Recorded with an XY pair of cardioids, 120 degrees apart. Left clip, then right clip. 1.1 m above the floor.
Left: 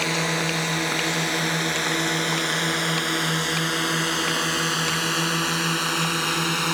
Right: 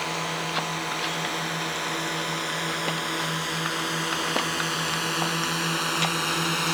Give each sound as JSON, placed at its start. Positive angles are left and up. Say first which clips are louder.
{"t": 0.0, "sound": "a drone", "louder": "left 5 dB", "azimuth_deg": 45}